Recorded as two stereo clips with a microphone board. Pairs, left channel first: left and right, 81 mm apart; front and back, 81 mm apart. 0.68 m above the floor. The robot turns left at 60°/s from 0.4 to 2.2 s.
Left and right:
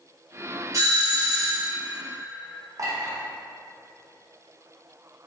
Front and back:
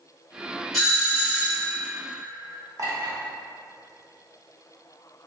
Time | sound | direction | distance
0.7 | a doorbell | 85° right | 1.4 m
2.8 | a clink | 135° right | 0.7 m